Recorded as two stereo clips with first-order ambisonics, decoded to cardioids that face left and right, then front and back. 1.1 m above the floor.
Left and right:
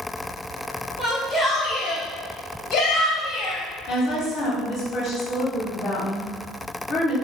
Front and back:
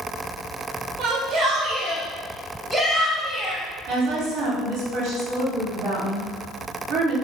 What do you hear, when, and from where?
1.0 s a shout: 170° right, 0.7 m; by 3.6 s 80° left, 1.3 m
3.9 s a woman speaking: 145° left, 1.6 m